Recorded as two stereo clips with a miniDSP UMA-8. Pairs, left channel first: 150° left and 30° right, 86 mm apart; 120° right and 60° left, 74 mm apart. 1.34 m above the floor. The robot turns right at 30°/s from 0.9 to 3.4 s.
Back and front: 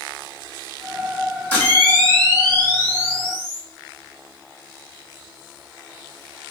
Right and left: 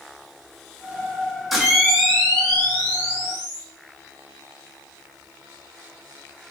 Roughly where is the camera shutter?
Behind left.